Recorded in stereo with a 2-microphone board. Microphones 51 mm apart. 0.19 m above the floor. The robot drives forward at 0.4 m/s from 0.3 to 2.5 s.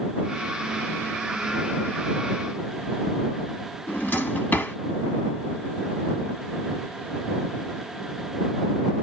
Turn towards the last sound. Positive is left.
turn(degrees=35)  # may be behind; listen again after turning